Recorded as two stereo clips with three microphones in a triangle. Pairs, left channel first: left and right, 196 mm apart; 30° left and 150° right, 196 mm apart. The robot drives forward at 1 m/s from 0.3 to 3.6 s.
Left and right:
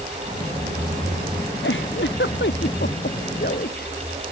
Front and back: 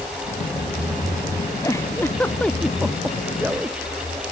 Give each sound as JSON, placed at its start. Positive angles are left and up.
{"t": 1.6, "sound": "a giggle", "azimuth_deg": 105}